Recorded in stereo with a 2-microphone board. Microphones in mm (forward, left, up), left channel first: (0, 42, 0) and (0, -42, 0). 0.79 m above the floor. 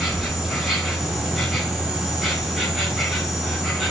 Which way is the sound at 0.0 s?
Centre (ahead or behind).